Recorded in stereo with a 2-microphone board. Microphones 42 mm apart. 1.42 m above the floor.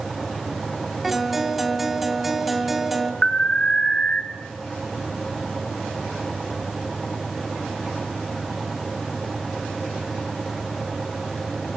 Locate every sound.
1.0 s a guitar: 5° right (ahead or behind), 2.5 m
3.2 s an alarm: 20° left (ahead or behind), 1.1 m